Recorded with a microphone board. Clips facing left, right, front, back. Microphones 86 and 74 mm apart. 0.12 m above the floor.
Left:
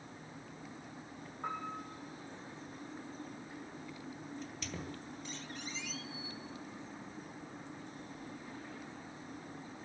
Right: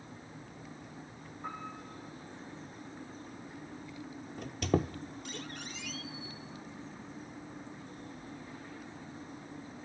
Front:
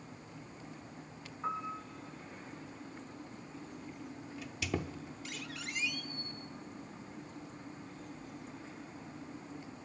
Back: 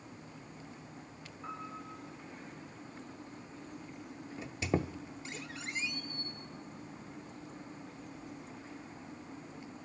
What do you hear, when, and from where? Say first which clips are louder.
1.4 s a piano: left 2 dB, front 6 dB; 60° left, 3.5 m
4.4 s a squeak: right 18 dB, back 5 dB; 120° right, 0.7 m